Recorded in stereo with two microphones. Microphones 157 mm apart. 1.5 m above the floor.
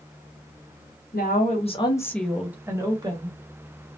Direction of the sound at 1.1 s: 65° left (ahead or behind).